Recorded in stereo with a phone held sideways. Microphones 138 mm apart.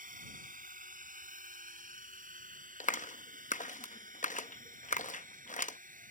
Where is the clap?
65° left (ahead or behind).